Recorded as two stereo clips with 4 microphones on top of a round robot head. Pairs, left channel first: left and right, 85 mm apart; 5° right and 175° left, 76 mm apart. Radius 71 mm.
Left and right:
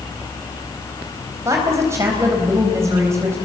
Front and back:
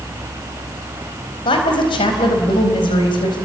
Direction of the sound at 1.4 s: 30° right.